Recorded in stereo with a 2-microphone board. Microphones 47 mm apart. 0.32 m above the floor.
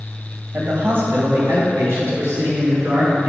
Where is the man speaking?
45° right (ahead or behind), 1.8 m; by 3.3 s 75° right (ahead or behind), 4 m.